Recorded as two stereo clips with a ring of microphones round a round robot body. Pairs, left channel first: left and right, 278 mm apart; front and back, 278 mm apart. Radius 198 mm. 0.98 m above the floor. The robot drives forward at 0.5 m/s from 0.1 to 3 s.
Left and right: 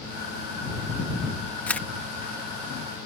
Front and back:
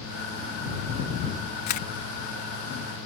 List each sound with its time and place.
1.7 s a camera shutter: 5° left